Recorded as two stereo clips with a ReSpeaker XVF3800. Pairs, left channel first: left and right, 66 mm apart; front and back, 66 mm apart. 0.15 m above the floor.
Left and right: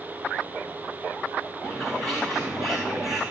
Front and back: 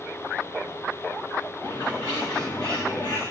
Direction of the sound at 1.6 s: 5° left.